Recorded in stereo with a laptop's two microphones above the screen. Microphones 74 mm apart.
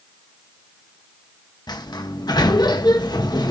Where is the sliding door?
65° left (ahead or behind), 1.5 m.